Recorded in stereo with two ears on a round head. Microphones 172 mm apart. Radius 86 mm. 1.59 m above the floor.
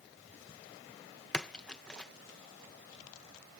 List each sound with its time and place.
1.3 s a splash: 5° left (ahead or behind)